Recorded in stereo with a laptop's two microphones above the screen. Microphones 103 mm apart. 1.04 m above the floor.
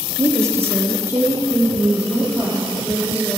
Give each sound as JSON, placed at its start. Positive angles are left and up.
{"t": 0.2, "sound": "a woman speaking", "side_deg": -30, "distance_m": 0.8}